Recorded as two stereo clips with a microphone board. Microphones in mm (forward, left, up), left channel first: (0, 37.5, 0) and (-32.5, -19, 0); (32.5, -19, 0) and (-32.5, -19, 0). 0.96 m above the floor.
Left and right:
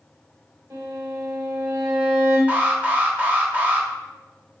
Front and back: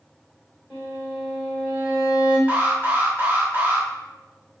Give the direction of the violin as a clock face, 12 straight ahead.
4 o'clock.